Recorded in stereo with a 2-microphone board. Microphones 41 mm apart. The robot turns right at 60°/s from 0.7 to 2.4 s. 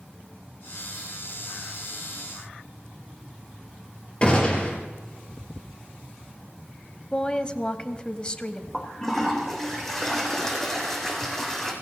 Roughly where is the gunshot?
Left.